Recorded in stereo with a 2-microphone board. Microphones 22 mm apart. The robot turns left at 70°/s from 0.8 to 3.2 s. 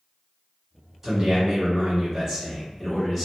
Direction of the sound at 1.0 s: 15° right (ahead or behind).